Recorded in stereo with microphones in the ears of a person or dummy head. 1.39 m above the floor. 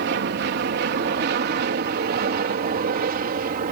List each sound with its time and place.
0.0 s an aircraft: 55° right (ahead or behind); by 3.7 s 45° right (ahead or behind)